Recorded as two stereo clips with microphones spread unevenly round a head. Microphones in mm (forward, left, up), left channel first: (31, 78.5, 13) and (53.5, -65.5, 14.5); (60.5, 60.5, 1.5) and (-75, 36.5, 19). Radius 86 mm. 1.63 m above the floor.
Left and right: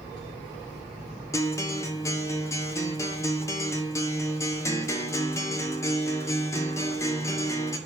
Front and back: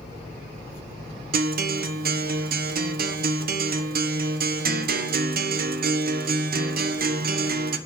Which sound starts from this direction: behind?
A guitar, at 1.3 s.